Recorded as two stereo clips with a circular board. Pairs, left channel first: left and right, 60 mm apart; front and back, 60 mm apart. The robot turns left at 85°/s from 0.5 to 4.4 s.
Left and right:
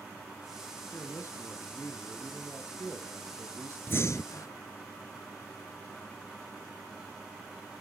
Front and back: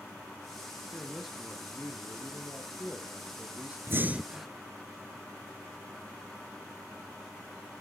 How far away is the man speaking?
About 2.0 m.